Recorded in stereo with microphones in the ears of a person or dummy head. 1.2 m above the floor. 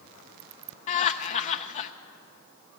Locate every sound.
0.9 s laughter: 45° left (ahead or behind), 0.6 m